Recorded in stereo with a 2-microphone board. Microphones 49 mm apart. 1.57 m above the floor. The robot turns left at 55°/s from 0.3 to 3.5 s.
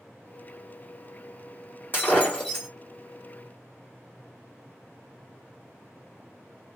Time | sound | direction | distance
1.9 | breaking glass | 45° left | 1.7 m